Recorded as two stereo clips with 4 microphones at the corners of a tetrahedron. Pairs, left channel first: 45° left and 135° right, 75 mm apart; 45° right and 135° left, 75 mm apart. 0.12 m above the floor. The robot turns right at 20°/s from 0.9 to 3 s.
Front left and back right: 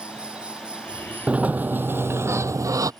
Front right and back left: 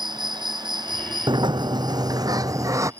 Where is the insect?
150° left; by 3.0 s 170° right.